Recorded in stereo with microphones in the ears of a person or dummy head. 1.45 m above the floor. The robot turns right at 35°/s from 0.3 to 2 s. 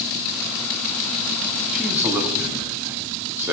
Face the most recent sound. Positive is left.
turn(degrees=-10)  # may be behind; listen again after turning